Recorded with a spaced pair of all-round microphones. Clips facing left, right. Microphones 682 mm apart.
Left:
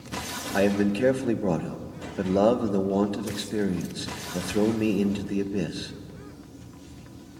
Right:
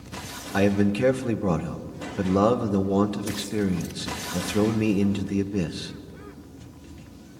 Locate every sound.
0.5 s a man speaking: 35° right (ahead or behind), 0.9 m